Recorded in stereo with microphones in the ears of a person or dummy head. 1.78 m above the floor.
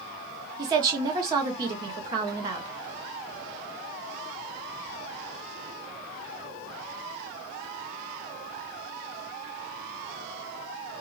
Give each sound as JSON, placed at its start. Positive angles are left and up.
{"t": 0.6, "sound": "a woman speaking", "side_deg": -20, "distance_m": 0.7}